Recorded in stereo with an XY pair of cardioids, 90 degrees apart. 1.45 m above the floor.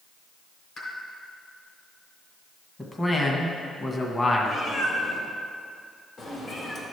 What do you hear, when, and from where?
0.8 s a pop: 50° left, 3 m
2.8 s a man speaking: 25° left, 1.5 m
4.5 s a cat meowing: 55° left, 2.5 m